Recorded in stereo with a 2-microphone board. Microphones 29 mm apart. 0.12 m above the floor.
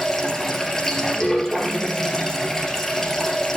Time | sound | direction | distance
0.0 | running water | 15° left (ahead or behind) | 1.8 m